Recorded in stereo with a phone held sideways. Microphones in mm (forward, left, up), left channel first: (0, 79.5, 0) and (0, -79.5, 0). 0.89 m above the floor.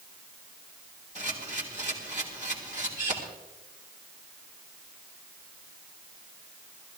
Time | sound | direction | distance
1.1 | a camera shutter | 50° right (ahead or behind) | 3 m